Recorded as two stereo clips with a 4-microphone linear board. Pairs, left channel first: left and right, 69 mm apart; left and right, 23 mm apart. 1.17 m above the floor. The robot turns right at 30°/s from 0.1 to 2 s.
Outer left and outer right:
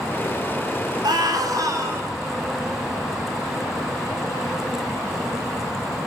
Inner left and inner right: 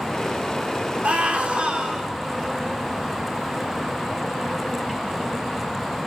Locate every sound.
1.0 s a scream: 75° right (ahead or behind), 3.5 m; by 2.1 s 45° right (ahead or behind), 3.5 m